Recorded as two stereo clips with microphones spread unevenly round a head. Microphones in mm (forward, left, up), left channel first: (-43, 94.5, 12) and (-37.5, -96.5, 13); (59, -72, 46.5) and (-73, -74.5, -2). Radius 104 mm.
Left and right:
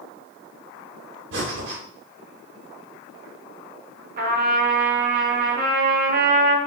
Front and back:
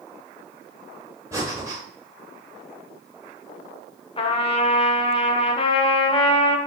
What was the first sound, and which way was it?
Breathing, 100° right.